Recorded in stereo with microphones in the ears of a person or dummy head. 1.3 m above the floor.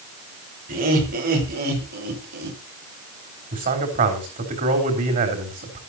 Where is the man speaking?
40° right (ahead or behind), 3.5 m.